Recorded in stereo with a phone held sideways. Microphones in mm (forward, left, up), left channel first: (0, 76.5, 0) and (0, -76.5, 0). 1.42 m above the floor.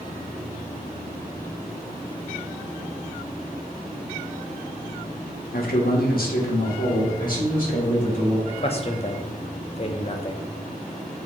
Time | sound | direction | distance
5.5 | a man speaking | 70° left (ahead or behind) | 0.8 m
8.5 | a man speaking | 40° left (ahead or behind) | 0.5 m